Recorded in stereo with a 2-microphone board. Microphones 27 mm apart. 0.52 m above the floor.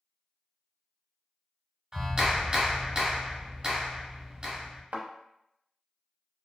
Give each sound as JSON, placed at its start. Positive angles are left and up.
{"t": 1.9, "sound": "a clap", "side_deg": -25, "distance_m": 1.0}
{"t": 4.9, "sound": "a thud", "side_deg": -65, "distance_m": 0.5}